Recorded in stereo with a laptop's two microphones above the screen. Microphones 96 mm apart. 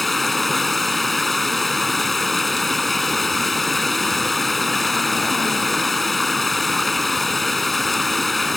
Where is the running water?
Centre (ahead or behind).